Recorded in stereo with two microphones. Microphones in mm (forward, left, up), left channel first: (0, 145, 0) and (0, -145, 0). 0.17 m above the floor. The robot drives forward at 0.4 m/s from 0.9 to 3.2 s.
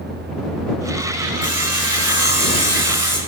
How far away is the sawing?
About 4 m.